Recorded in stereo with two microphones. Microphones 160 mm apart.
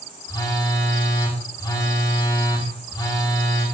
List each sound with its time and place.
0.3 s a phone buzzing: 25° left (ahead or behind), 5 m